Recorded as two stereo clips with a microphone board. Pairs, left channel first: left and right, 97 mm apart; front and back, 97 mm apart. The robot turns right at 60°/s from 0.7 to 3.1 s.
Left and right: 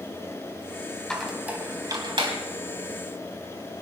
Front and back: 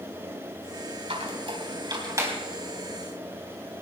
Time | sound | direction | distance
1.1 | a squeak | 170° left | 3.5 m